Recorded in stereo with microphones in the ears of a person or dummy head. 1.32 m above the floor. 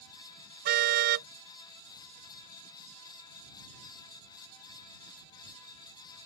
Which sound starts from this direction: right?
A car horn, at 0.7 s.